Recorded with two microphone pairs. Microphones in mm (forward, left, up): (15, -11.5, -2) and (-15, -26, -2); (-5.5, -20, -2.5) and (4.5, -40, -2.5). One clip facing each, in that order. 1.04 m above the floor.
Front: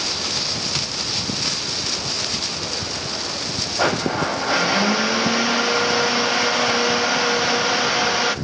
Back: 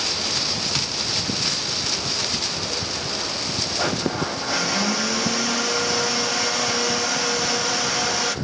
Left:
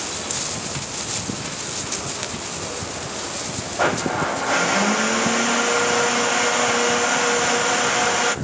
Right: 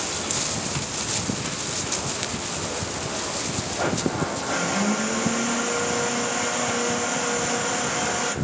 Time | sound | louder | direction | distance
3.8 | a blender | front 5 dB, left 5 dB | 75° left | 0.7 m